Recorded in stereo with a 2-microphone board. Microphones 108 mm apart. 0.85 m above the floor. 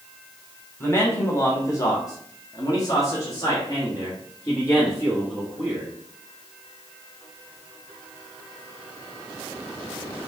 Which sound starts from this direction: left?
A man speaking, at 0.8 s.